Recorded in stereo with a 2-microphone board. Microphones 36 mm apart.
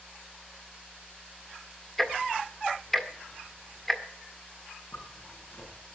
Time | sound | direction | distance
2.0 | ticking | 5° left (ahead or behind) | 1.5 m
4.9 | a zipper | 75° left (ahead or behind) | 7.5 m